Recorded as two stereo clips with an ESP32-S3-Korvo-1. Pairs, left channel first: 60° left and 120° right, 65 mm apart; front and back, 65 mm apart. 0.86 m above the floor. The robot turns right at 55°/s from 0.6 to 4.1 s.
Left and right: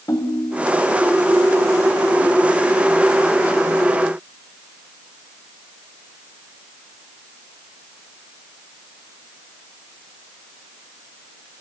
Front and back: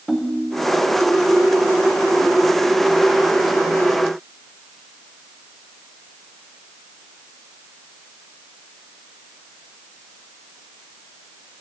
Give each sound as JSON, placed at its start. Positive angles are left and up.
{"t": 0.1, "sound": "a ringtone", "azimuth_deg": 85, "distance_m": 1.8}